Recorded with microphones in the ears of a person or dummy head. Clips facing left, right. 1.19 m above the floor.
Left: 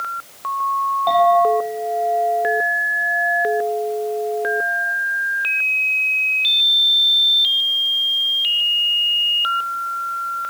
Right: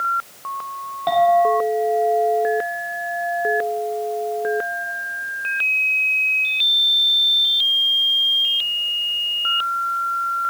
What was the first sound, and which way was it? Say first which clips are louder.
A clink: even; 25° right (ahead or behind).